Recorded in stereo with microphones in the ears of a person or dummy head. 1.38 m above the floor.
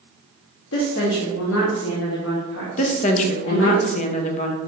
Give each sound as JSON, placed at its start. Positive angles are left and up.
{"t": 0.7, "sound": "a woman speaking", "side_deg": 70, "distance_m": 1.0}
{"t": 2.8, "sound": "a woman speaking", "side_deg": 40, "distance_m": 0.7}